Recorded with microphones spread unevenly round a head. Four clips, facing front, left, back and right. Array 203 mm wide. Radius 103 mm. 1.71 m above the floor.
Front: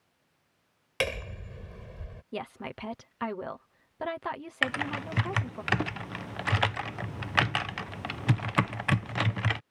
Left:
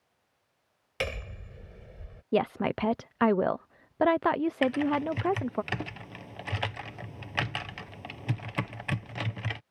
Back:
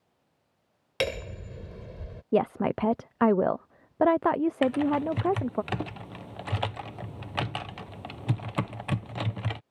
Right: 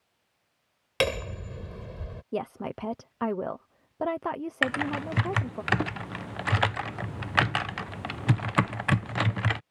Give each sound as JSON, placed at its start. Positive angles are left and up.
{"t": 1.0, "sound": "hammering", "azimuth_deg": -125}
{"t": 2.3, "sound": "a woman speaking", "azimuth_deg": 155}
{"t": 4.6, "sound": "typing on a keyboard", "azimuth_deg": -95}